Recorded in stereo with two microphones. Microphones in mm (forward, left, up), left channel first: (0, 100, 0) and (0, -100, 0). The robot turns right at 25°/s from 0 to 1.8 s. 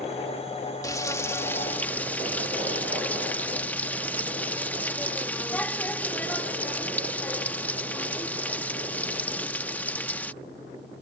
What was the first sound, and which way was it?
Frying, 15° left (ahead or behind).